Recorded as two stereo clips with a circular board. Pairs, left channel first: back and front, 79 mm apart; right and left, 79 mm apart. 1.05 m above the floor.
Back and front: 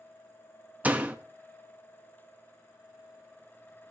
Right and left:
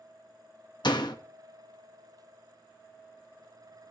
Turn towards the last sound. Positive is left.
turn(degrees=-70)